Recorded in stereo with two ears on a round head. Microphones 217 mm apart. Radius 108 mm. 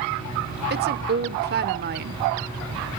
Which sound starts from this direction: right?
A woman speaking, at 0.7 s.